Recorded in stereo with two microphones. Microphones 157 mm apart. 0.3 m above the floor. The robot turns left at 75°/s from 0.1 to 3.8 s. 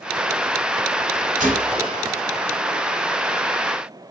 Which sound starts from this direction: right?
A gunshot, at 1.4 s.